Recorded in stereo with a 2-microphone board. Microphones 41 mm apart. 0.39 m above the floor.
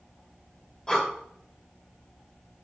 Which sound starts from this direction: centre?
Breathing, at 0.9 s.